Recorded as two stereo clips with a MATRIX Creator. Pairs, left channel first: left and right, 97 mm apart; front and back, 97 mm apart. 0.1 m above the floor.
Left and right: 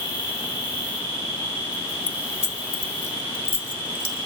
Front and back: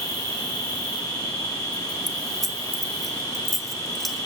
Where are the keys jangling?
90° left, 1.1 m.